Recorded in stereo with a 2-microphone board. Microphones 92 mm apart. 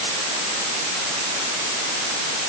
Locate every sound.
Only background noise.